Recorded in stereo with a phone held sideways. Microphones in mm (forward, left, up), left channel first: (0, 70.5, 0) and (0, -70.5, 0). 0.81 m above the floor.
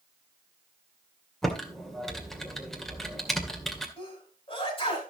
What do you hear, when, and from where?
1.4 s typing on a keyboard: centre (ahead or behind), 2 m
4.0 s a sneeze: 40° left (ahead or behind), 6.5 m